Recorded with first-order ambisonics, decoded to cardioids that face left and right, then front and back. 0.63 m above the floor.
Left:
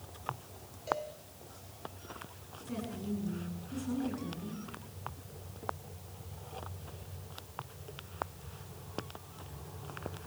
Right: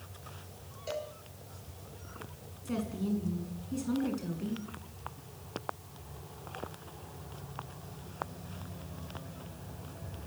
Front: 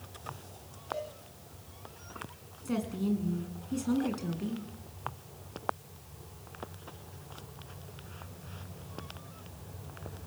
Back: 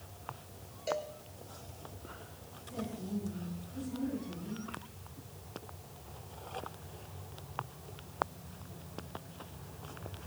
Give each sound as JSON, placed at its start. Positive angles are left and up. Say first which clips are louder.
{"t": 0.9, "sound": "a cowbell", "louder": "left 3 dB, back 2 dB", "azimuth_deg": -165, "distance_m": 4.5}
{"t": 2.6, "sound": "a woman speaking", "louder": "right 4 dB, front 8 dB", "azimuth_deg": -25, "distance_m": 7.0}